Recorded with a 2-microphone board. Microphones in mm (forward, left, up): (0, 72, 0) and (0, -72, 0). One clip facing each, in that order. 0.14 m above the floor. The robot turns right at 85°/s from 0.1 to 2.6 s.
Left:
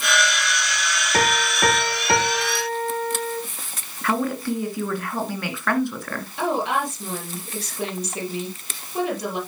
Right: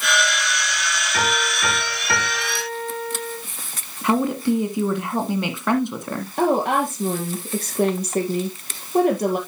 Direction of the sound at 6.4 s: 50° right (ahead or behind).